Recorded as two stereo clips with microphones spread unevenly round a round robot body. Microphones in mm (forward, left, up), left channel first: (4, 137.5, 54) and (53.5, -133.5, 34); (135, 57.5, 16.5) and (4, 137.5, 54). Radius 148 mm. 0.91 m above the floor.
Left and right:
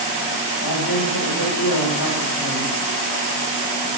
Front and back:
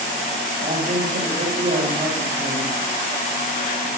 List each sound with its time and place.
0.6 s a man speaking: 125° left, 4 m